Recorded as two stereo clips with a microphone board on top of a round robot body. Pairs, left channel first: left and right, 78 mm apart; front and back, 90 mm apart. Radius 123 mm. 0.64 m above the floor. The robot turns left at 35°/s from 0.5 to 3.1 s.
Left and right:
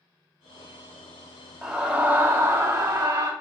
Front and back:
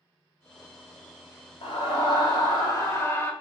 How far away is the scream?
About 3.5 m.